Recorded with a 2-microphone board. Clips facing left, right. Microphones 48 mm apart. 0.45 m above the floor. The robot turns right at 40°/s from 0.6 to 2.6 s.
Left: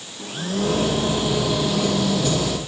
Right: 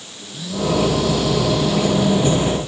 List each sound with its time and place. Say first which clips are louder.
0.2 s a blender: even; 130° left; by 2.6 s 150° right